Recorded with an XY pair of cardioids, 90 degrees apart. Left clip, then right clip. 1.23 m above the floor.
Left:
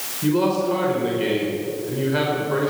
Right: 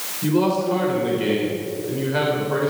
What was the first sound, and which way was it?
A man speaking, 5° left.